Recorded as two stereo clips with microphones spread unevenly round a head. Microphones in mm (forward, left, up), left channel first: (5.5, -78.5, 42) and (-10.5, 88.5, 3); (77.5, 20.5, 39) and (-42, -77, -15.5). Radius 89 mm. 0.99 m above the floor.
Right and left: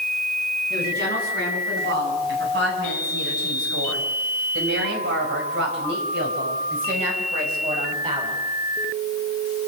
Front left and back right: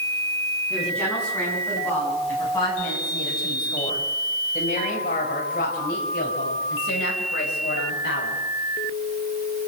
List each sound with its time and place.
0.7 s a woman speaking: 125° left, 8 m; by 8.4 s 40° left, 5 m